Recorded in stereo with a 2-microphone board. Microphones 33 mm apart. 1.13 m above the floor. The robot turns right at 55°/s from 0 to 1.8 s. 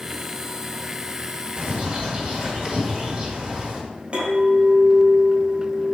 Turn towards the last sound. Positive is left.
turn(degrees=-35)  # may be behind; listen again after turning